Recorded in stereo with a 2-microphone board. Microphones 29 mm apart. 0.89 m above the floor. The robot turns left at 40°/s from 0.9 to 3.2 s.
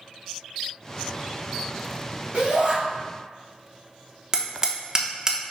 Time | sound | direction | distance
2.3 | a shout | 55° right (ahead or behind) | 2 m
4.3 | hammering | 25° right (ahead or behind) | 0.8 m